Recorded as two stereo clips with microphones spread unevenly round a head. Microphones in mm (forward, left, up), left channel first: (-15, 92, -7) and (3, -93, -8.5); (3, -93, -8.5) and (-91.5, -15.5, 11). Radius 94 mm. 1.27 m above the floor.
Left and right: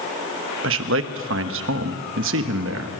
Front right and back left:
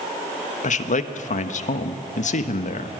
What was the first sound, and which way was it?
A man speaking, 60° right.